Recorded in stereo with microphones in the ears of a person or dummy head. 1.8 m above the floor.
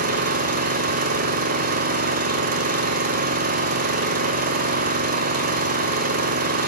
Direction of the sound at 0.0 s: 50° right (ahead or behind).